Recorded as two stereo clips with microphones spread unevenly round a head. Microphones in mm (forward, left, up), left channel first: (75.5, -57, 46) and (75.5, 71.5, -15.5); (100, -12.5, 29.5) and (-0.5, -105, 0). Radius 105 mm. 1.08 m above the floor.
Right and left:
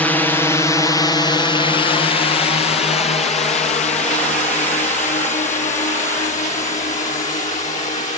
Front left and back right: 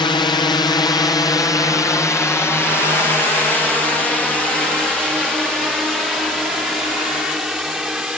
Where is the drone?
60° left; by 8.2 s 50° right.